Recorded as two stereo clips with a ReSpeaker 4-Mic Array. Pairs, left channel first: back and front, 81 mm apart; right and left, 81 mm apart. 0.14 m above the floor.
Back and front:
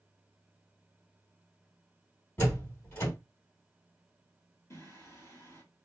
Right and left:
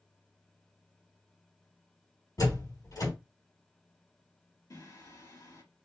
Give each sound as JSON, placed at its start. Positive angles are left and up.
{"t": 2.4, "sound": "a door slam", "azimuth_deg": -120, "distance_m": 3.0}
{"t": 4.7, "sound": "singing", "azimuth_deg": -130, "distance_m": 2.5}